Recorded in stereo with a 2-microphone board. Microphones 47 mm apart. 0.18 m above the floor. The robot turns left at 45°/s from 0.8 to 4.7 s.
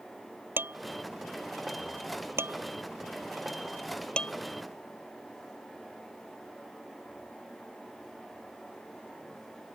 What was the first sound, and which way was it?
Dishes clattering, 45° right (ahead or behind).